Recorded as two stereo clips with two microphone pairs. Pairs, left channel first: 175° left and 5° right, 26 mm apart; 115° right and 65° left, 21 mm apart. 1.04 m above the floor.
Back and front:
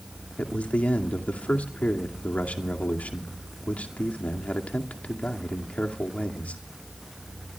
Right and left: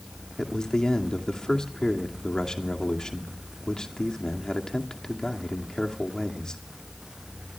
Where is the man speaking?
170° right, 2.5 m.